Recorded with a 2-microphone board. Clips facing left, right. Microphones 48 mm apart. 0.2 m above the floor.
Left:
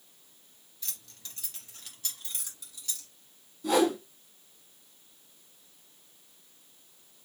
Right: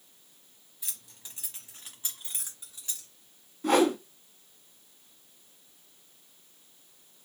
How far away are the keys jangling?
About 1.1 m.